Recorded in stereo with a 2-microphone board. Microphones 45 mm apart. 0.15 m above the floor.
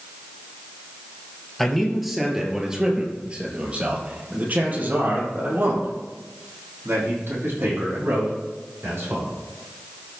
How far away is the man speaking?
About 3.5 m.